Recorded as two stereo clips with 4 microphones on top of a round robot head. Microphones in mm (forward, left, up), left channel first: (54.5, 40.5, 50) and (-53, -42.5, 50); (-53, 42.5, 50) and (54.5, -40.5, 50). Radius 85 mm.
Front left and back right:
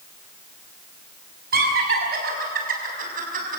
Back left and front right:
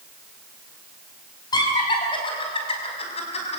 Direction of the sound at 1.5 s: 155° right.